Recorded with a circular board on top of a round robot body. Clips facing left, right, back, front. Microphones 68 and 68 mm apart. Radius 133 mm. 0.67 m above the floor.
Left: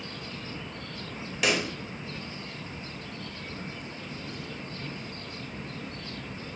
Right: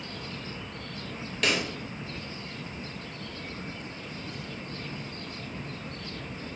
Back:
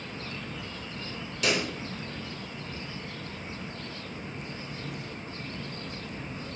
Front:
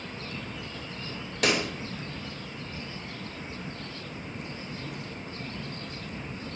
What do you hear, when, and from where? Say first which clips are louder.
1.4 s a pop: left 1 dB, front 2 dB; 5° left, 1.0 m